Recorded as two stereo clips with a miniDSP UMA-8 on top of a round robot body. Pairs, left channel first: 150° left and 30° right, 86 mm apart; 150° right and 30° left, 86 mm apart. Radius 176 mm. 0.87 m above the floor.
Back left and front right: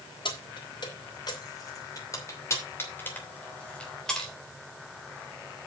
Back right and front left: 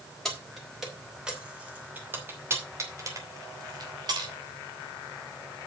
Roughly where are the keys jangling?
Behind left.